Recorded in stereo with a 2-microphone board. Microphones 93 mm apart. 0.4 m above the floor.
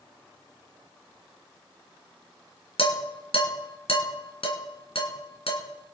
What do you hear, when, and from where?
2.8 s dishes clattering: 75° left (ahead or behind), 3 m